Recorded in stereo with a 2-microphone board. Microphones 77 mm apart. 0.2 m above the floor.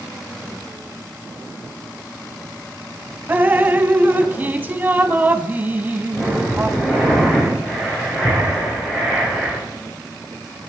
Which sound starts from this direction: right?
Dripping, at 3.3 s.